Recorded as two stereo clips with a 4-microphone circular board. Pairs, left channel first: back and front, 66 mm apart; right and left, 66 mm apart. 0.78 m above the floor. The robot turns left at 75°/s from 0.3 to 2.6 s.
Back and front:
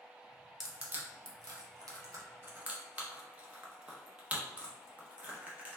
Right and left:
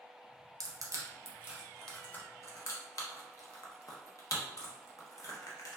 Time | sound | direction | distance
0.6 | crushing | 85° left | 0.5 m